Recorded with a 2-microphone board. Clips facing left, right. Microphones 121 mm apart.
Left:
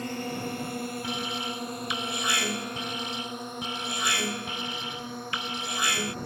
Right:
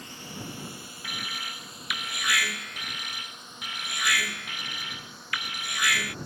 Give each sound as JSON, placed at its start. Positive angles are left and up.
{"t": 0.0, "sound": "a drone", "side_deg": 55}
{"t": 1.0, "sound": "an alarm", "side_deg": 30}